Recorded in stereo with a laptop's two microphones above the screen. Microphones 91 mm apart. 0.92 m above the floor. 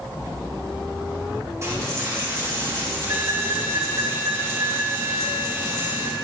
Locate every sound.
1.6 s a dropped coin: 35° right (ahead or behind), 3 m